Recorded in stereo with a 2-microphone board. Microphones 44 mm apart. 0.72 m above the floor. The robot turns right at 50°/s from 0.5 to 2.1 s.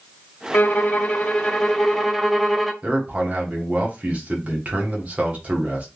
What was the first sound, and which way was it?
A violin, 100° left.